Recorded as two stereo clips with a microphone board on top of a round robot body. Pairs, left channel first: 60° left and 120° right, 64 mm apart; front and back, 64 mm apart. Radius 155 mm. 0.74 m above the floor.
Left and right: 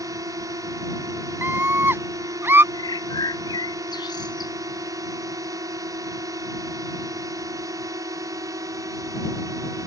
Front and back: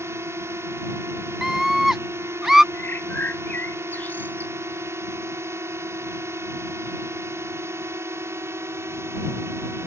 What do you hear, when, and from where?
0.0 s a drone: 135° right
1.4 s a scream: 100° right
2.7 s a bird: 65° left